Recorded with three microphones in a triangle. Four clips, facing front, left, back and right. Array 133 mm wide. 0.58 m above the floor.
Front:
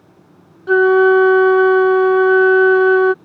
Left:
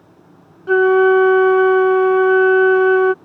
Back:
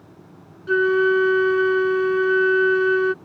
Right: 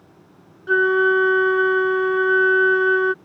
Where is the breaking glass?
I don't hear breaking glass.